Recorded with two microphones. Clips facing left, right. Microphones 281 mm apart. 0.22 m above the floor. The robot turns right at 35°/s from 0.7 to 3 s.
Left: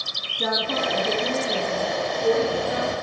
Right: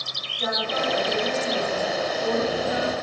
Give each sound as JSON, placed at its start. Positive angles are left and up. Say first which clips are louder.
{"t": 0.4, "sound": "a woman speaking", "louder": "left 2 dB", "azimuth_deg": 110, "distance_m": 2.5}